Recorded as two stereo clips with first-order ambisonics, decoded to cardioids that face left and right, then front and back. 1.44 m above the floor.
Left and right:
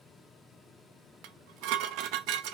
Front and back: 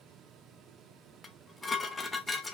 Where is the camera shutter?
No camera shutter in this recording.